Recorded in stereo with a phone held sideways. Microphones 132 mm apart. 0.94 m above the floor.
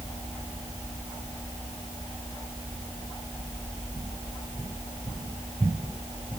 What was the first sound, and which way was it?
Only background noise.